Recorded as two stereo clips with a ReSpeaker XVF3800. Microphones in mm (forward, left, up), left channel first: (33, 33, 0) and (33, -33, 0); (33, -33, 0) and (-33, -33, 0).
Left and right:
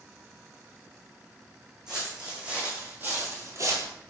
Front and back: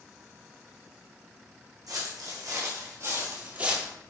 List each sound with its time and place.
1.9 s footsteps: 170° right, 3.5 m; by 3.9 s 105° right, 1.8 m